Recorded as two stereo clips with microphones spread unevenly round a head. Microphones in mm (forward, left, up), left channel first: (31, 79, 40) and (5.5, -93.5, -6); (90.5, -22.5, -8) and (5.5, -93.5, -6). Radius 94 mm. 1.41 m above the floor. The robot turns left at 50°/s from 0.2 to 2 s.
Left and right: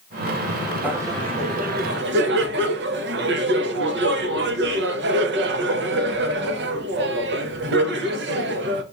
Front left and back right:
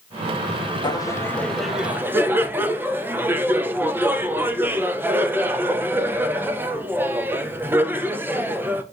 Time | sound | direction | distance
0.8 | laughter | 10° right | 0.6 m